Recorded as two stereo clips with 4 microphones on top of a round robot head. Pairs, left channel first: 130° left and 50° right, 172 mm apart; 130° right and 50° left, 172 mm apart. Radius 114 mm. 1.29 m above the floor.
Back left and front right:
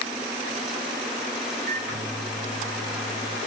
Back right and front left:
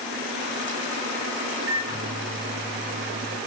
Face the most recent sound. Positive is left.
turn(degrees=-10)